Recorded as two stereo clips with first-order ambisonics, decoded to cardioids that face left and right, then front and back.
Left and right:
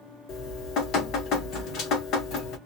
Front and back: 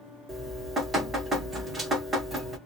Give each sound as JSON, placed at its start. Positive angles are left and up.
{"t": 0.3, "sound": "dripping", "azimuth_deg": 110, "distance_m": 1.0}